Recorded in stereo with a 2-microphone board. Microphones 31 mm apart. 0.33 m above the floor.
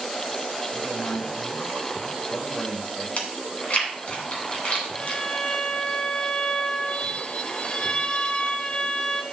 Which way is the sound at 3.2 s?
50° left (ahead or behind).